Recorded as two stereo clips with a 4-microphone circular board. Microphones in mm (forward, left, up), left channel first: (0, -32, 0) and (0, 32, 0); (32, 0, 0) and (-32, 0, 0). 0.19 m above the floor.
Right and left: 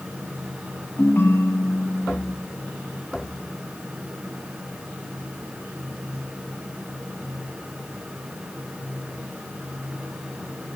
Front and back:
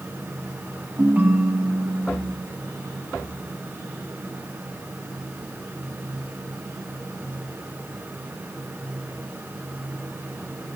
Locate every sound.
1.0 s a ringtone: 130° right, 0.8 m